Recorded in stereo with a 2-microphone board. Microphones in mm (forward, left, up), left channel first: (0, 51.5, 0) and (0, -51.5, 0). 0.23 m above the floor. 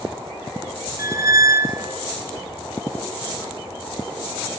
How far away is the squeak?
About 1.2 m.